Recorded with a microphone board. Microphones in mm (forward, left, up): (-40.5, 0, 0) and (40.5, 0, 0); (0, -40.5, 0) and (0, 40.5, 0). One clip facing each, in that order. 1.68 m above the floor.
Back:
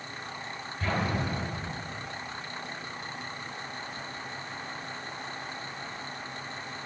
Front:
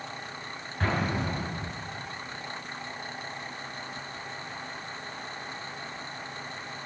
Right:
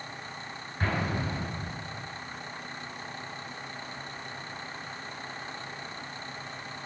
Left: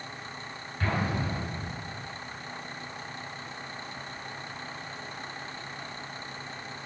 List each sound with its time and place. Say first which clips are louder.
0.8 s an explosion: front 1 dB, left 1 dB; 25° right, 8.5 m